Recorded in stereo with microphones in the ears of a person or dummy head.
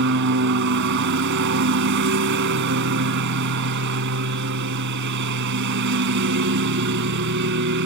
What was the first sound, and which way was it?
A lawn mower, 60° right (ahead or behind).